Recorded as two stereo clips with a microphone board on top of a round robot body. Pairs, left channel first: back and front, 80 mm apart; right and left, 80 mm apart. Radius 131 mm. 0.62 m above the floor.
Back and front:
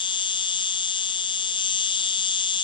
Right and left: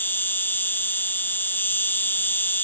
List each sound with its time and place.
0.0 s an insect: 155° right